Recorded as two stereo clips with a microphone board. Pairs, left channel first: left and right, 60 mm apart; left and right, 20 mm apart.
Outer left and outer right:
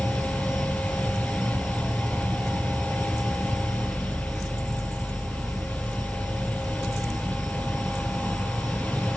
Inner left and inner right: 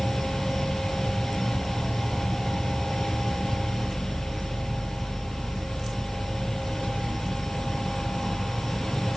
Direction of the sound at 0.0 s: 10° right (ahead or behind).